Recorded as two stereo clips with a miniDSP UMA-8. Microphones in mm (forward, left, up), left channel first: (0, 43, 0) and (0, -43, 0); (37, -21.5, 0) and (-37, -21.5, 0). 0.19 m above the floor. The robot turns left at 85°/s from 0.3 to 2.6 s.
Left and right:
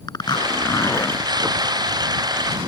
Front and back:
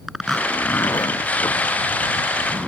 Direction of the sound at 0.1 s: 90° left.